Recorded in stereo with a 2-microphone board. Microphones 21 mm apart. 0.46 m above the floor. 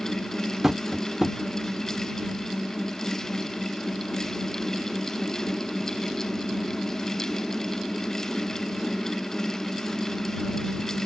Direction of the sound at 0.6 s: 35° right (ahead or behind).